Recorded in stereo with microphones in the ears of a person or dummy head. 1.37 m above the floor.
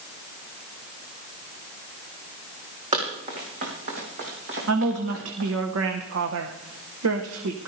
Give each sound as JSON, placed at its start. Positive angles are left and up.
{"t": 2.9, "sound": "running footsteps", "side_deg": -30, "distance_m": 3.5}
{"t": 4.7, "sound": "a woman speaking", "side_deg": -85, "distance_m": 1.0}